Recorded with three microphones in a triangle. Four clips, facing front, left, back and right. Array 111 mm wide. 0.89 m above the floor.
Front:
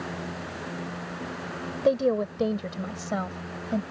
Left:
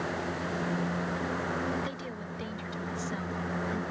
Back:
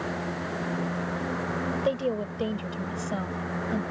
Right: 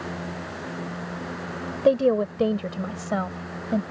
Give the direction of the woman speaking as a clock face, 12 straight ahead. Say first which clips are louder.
Right 19 dB, front 8 dB; 2 o'clock.